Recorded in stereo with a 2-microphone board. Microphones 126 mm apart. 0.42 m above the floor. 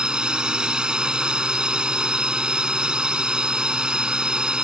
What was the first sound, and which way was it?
A drone, 5° right (ahead or behind).